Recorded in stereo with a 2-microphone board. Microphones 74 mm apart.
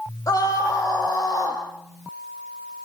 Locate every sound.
0.3 s a scream: 45° left (ahead or behind), 5.5 m